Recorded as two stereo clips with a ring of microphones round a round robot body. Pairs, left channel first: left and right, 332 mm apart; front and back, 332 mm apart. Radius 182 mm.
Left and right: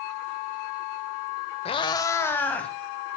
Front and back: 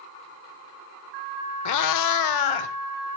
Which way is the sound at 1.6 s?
20° left.